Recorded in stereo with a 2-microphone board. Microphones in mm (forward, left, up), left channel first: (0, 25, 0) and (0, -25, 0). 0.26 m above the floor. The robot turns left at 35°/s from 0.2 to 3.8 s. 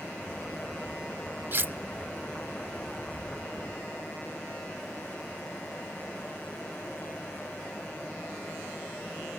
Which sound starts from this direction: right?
Cutlery clinking, at 1.5 s.